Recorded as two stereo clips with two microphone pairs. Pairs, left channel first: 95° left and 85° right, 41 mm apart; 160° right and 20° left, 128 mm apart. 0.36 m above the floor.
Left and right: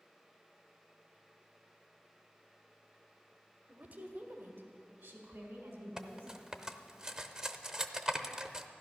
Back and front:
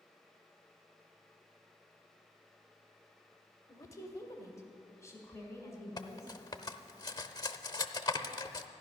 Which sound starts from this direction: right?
A woman speaking, at 3.7 s.